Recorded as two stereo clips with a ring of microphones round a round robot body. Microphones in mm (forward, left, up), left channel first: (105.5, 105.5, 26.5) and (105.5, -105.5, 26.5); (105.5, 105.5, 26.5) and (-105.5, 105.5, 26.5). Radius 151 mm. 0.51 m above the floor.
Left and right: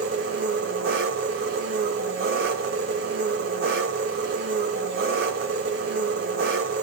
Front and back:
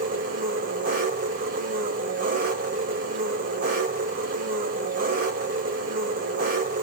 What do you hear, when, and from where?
0.0 s an engine running: 130° right, 0.9 m